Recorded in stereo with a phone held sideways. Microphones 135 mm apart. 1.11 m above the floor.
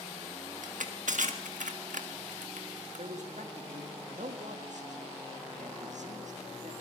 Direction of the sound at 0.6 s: 80° right.